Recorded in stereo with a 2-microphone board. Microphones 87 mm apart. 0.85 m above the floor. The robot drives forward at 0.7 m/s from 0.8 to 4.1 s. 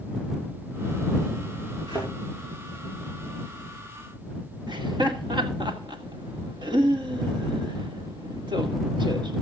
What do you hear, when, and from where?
1.9 s a thud: 70° right (ahead or behind), 7 m
4.7 s laughter: 70° right (ahead or behind), 2 m